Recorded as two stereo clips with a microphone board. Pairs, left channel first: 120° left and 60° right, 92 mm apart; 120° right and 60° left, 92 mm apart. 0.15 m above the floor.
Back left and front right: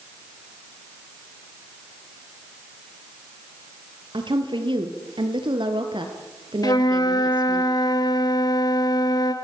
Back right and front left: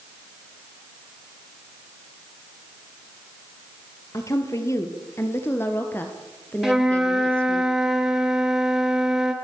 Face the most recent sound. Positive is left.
turn(degrees=145)